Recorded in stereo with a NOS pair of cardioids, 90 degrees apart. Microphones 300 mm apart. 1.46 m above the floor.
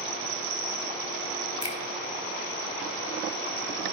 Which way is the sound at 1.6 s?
15° left.